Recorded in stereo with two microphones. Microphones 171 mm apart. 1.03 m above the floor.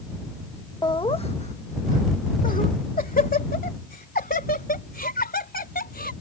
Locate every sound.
0.8 s laughter: 25° left (ahead or behind); by 6.1 s 65° left (ahead or behind)